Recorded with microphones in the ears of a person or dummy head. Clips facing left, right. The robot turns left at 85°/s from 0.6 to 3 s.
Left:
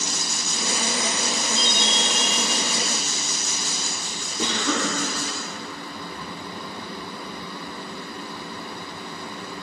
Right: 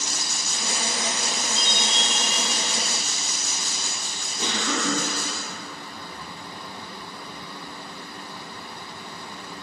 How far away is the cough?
About 1.7 m.